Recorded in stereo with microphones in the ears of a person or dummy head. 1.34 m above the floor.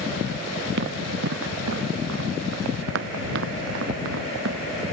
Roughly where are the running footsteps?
Right.